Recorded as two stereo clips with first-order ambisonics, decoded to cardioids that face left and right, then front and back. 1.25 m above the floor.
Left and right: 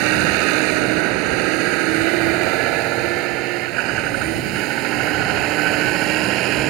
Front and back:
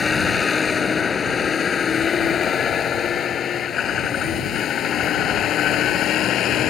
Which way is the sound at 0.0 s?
75° right.